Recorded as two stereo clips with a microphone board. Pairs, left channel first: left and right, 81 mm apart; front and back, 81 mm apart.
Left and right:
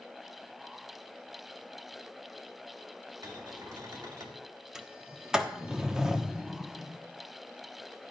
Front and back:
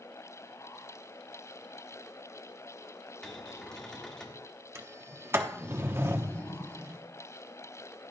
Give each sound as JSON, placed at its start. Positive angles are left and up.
{"t": 3.2, "sound": "a cupboard door", "azimuth_deg": -80, "distance_m": 2.0}
{"t": 4.8, "sound": "a sliding door", "azimuth_deg": -165, "distance_m": 0.9}